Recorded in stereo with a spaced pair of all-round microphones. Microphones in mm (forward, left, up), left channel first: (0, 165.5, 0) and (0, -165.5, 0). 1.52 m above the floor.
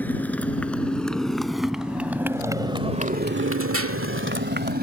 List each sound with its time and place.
0.0 s a motorcycle: 5° left (ahead or behind); by 4.8 s 30° right (ahead or behind)